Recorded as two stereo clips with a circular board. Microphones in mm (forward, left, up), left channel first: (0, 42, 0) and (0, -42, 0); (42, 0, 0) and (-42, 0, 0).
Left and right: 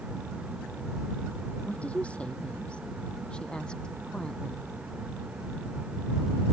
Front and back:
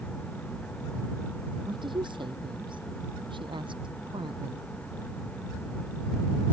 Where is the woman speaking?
165° left; by 4.7 s 170° left.